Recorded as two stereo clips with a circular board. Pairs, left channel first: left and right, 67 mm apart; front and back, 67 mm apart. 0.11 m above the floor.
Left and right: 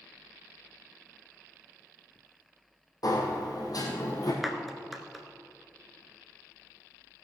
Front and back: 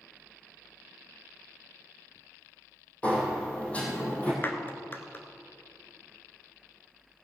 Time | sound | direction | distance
3.0 | a sliding door | 70° left | 3 m
4.4 | a clap | 5° right | 1.0 m